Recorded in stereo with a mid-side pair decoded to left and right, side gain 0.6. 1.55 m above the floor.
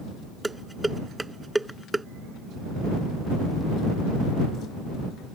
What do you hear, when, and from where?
0.4 s dishes clattering: 10° right